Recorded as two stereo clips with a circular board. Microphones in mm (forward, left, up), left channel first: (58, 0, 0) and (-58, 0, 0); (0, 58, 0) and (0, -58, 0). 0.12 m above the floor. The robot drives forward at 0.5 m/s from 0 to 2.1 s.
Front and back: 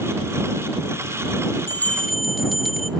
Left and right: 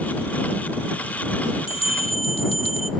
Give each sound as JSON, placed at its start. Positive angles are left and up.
{"t": 1.7, "sound": "a bell", "azimuth_deg": 65, "distance_m": 0.6}